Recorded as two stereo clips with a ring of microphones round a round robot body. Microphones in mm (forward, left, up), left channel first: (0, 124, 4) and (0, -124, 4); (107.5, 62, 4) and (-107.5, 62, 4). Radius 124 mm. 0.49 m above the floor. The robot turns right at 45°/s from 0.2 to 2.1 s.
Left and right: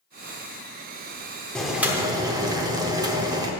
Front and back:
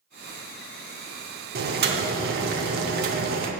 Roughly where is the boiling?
Behind.